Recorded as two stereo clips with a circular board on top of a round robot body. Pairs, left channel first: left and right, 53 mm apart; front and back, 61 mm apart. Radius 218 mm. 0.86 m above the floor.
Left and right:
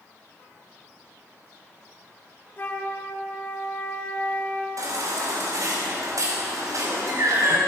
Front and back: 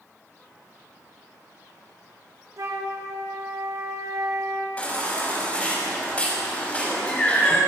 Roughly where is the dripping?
I don't hear dripping.